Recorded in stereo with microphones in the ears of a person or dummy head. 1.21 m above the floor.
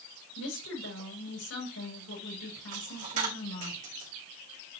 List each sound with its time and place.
0.3 s a woman speaking: 85° left, 5.5 m
2.7 s a dropped coin: 45° right (ahead or behind), 2.0 m